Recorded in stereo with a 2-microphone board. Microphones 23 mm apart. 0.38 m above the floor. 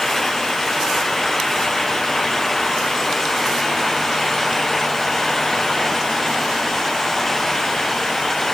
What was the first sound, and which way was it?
Only background noise.